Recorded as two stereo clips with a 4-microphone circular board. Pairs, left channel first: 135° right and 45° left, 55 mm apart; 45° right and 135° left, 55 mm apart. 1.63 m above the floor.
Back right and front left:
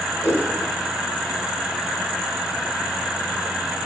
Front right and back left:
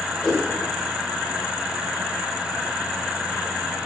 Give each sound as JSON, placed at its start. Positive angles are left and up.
{"t": 0.2, "sound": "a whoosh", "azimuth_deg": -130, "distance_m": 2.5}